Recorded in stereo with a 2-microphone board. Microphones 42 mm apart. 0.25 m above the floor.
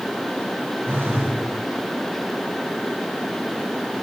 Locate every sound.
0.8 s a phone buzzing: 60° right (ahead or behind), 5.5 m